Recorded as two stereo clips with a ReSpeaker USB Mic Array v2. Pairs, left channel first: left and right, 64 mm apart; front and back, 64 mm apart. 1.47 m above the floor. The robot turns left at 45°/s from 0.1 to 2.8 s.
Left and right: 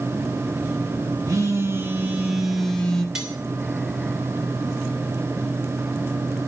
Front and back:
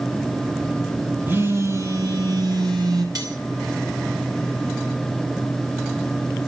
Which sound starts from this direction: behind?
Cutlery clinking, at 3.1 s.